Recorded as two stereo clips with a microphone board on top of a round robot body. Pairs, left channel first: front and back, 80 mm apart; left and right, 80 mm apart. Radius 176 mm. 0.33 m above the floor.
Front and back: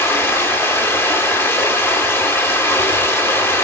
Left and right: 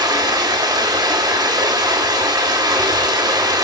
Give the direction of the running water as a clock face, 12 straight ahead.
2 o'clock.